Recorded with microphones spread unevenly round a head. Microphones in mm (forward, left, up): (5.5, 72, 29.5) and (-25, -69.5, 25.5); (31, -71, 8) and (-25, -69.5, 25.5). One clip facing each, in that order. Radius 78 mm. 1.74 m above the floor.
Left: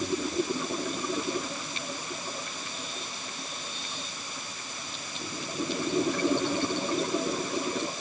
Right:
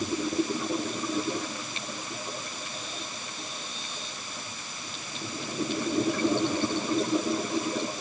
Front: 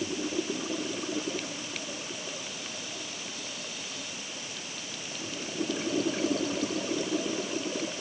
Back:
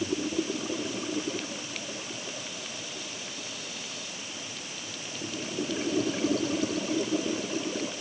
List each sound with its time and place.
Only background noise.